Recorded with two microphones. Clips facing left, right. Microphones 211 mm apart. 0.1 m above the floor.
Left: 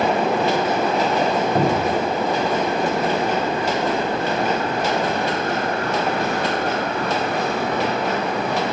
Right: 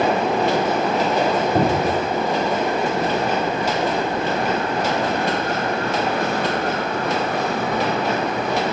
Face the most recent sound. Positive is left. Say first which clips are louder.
# even
turn(degrees=-5)  # may be behind; listen again after turning